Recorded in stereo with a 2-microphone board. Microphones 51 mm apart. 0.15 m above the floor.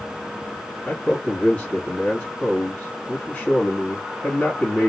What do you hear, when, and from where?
0.9 s a man speaking: 25° left (ahead or behind), 1.4 m